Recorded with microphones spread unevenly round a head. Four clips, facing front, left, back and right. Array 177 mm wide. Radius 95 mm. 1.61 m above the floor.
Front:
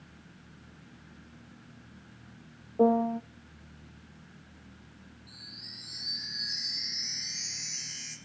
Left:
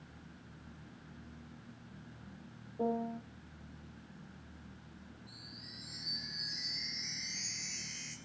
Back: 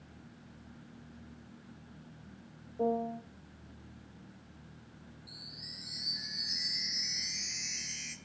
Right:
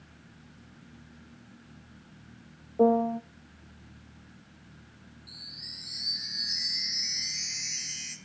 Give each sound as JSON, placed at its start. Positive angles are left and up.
{"t": 2.8, "sound": "a piano", "azimuth_deg": -50, "distance_m": 0.8}
{"t": 5.3, "sound": "a chime", "azimuth_deg": -160, "distance_m": 3.5}